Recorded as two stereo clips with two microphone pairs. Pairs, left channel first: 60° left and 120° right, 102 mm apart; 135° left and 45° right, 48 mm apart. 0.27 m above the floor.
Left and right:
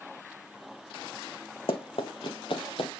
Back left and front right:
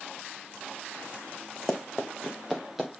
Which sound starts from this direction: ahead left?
Running footsteps, at 1.7 s.